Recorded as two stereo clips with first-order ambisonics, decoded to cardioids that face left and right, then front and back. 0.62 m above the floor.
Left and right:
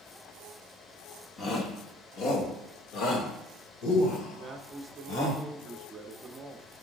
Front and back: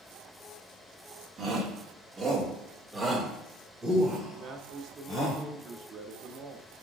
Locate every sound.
1.4 s a shout: 130° left, 1.4 m; by 5.4 s 95° left, 3.5 m
4.4 s a man speaking: 150° right, 0.9 m